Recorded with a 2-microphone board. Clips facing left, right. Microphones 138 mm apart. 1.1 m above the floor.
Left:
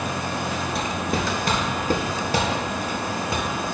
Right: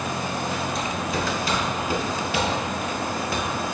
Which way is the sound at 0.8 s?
60° left (ahead or behind).